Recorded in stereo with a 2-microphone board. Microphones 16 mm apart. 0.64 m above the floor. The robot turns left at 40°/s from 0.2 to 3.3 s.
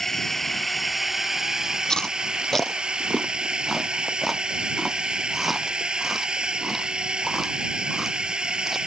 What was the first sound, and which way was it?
A drone, 20° left.